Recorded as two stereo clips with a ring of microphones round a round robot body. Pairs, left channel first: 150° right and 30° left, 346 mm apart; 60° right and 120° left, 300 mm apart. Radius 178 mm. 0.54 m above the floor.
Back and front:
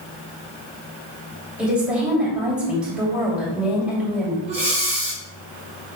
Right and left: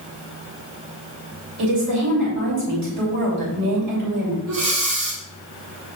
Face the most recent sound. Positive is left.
turn(degrees=100)